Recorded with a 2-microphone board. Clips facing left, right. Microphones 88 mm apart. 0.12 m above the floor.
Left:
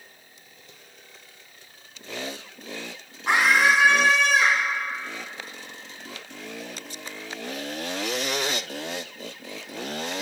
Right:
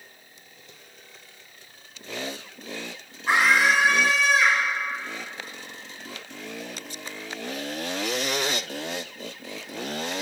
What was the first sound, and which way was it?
A scream, 70° left (ahead or behind).